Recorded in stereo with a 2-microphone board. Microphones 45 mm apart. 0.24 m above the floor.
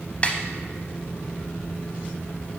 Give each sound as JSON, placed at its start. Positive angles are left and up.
{"t": 0.2, "sound": "a snare drum", "side_deg": 30, "distance_m": 0.7}